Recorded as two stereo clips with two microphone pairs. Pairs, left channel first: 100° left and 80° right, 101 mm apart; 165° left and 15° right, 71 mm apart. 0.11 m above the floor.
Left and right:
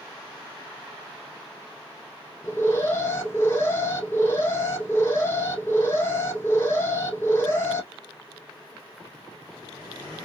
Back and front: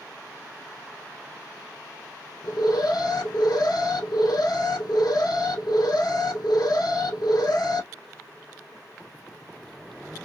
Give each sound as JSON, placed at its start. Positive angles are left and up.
{"t": 2.4, "sound": "an alarm", "azimuth_deg": 165, "distance_m": 3.0}